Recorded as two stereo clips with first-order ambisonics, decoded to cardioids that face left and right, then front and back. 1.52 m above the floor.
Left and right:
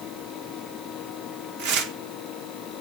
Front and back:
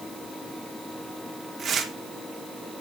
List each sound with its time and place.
1.6 s tearing paper: 120° right, 1.7 m